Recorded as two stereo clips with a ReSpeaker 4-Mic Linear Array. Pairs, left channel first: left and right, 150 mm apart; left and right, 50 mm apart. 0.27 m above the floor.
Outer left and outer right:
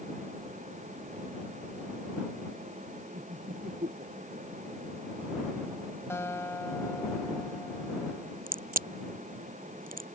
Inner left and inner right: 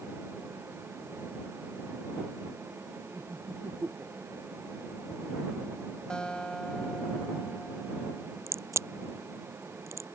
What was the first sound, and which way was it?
Laughter, 80° right.